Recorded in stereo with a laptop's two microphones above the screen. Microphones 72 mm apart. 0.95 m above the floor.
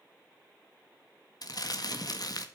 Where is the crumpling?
60° left (ahead or behind), 1.7 m.